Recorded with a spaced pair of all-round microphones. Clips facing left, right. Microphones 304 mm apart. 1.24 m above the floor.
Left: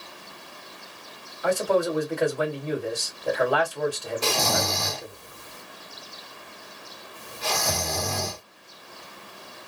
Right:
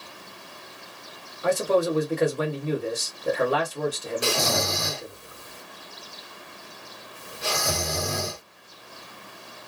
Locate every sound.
1.4 s a man speaking: 25° right (ahead or behind), 1.6 m
4.2 s snoring: 15° right (ahead or behind), 1.6 m